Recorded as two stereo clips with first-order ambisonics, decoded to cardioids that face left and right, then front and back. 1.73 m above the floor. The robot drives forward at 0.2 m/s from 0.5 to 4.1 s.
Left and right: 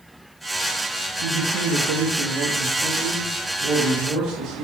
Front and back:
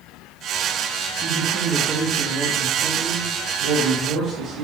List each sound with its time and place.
1.2 s a man speaking: 115° right, 0.7 m; by 4.6 s 145° right, 1.1 m